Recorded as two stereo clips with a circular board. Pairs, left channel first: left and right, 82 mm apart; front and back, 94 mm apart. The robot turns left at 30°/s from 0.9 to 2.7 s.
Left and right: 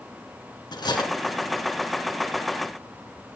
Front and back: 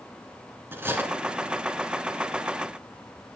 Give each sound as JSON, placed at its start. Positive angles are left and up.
{"t": 0.7, "sound": "cutlery clinking", "azimuth_deg": 115, "distance_m": 1.9}